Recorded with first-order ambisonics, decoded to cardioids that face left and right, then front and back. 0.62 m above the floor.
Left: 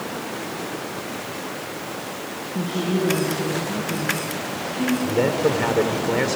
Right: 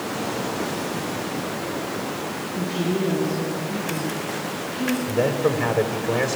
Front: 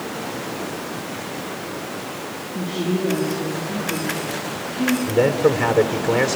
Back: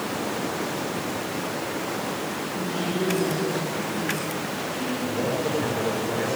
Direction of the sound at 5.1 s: 25° left.